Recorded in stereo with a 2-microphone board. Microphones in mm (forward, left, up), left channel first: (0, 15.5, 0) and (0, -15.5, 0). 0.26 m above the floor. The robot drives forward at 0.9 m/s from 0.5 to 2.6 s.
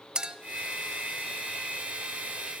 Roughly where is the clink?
Right.